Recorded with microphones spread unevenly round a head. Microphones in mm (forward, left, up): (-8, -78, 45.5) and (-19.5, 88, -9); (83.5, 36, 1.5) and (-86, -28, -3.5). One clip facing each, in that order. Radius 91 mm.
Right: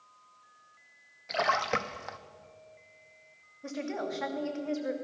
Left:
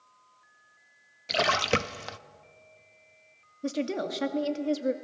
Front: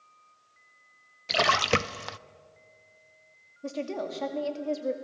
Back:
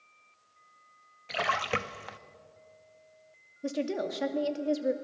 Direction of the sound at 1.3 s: 35° left.